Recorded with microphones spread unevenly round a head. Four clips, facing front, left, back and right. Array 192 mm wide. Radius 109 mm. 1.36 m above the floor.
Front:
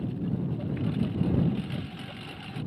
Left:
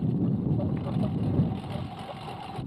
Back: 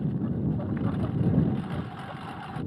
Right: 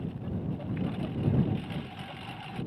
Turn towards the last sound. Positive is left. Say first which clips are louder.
# left 8 dB, back 2 dB
turn(degrees=110)